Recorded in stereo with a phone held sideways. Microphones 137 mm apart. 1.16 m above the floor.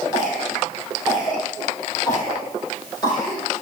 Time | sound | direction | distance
0.1 | a cough | 30° left (ahead or behind) | 6 m